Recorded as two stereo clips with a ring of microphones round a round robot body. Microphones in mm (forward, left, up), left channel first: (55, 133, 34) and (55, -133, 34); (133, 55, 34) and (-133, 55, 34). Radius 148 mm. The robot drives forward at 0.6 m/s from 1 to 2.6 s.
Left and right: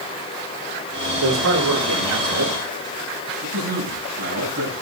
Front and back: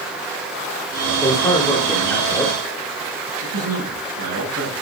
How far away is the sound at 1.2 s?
About 4.5 m.